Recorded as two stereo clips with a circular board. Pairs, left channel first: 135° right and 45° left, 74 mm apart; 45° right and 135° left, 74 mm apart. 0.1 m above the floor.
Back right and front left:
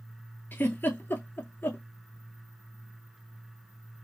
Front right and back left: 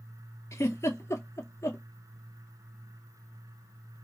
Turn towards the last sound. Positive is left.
turn(degrees=-80)